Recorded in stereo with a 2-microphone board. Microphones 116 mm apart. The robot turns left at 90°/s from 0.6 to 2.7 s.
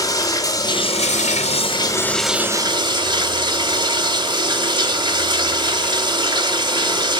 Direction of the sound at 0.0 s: 150° left.